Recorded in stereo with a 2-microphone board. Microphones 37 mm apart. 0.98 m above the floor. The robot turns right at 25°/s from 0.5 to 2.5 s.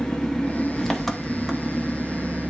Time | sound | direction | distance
0.0 | an engine running | 160° left | 1.0 m